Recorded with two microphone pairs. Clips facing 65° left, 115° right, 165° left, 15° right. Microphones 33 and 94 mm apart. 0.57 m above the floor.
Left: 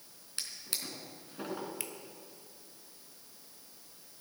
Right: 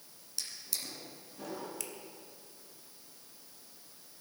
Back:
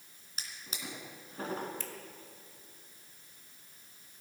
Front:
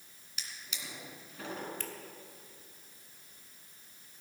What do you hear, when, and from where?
0.4 s a drawer: 110° left, 2.5 m
1.8 s a finger snap: straight ahead, 1.4 m